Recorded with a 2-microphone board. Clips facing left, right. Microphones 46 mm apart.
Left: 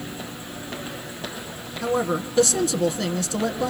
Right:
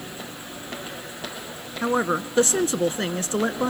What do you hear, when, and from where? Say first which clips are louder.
1.8 s a woman speaking: right 1 dB; 30° right (ahead or behind), 1.5 m